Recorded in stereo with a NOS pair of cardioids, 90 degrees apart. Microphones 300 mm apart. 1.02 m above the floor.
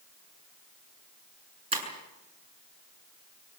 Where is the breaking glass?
20° right, 7.5 m.